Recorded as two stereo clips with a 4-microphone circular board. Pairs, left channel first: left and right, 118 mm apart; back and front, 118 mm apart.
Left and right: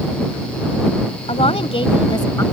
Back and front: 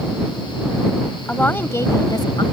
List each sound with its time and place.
1.3 s a woman speaking: 105° left; by 2.4 s 145° left